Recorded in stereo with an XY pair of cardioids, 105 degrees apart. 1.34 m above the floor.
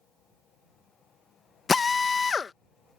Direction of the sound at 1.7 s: 30° left.